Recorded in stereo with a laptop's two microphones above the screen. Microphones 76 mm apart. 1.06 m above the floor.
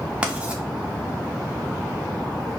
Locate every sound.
0.2 s writing: 15° right (ahead or behind), 0.6 m